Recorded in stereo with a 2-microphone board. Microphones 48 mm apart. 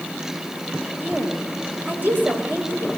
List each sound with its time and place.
1.0 s a woman speaking: 35° right (ahead or behind), 5 m